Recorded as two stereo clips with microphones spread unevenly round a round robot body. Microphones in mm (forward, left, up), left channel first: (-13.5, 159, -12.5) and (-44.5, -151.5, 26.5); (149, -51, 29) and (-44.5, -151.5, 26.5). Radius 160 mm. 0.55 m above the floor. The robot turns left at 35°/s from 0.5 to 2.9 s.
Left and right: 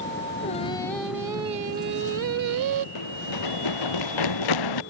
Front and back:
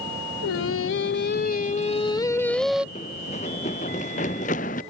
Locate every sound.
0.4 s singing: 15° left; by 2.9 s 65° right
3.0 s running footsteps: 100° left; by 4.8 s 95° left